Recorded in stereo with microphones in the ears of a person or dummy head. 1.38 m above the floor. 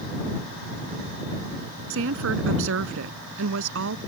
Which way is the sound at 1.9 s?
65° right (ahead or behind).